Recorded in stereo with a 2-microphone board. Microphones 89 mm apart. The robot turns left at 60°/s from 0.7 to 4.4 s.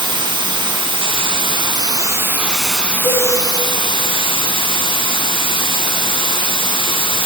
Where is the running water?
60° right, 2 m; by 7.3 s 75° left, 2 m.